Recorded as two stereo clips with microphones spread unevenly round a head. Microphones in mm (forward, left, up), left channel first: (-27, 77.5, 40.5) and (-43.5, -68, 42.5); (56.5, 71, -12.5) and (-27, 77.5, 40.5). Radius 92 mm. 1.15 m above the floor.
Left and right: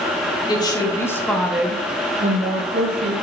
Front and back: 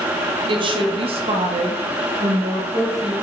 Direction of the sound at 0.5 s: 145° left.